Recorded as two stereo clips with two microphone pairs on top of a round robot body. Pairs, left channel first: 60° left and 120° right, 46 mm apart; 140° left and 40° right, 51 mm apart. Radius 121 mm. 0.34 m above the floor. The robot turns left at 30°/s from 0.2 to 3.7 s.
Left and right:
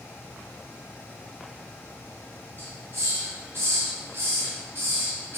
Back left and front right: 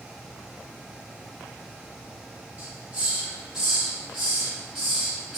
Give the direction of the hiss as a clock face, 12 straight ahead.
3 o'clock.